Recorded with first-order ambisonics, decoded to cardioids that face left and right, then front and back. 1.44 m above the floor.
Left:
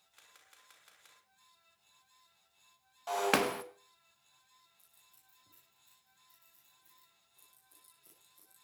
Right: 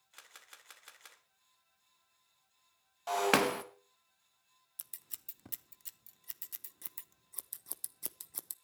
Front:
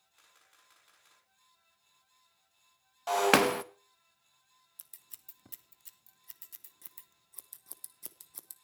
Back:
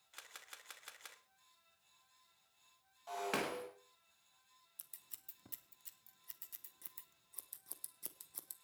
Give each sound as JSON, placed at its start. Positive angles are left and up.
{"t": 0.1, "sound": "a camera shutter", "azimuth_deg": -150, "distance_m": 1.8}
{"t": 3.1, "sound": "breaking glass", "azimuth_deg": -5, "distance_m": 0.9}
{"t": 4.8, "sound": "scissors", "azimuth_deg": -80, "distance_m": 0.9}